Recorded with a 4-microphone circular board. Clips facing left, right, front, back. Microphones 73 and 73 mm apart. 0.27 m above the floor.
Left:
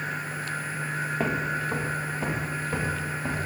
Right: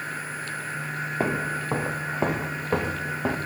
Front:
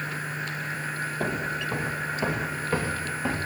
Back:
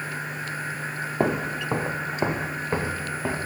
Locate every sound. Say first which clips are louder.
1.2 s footsteps: right 2 dB, back 6 dB; 160° right, 1.2 m; by 3.4 s 105° right, 2.5 m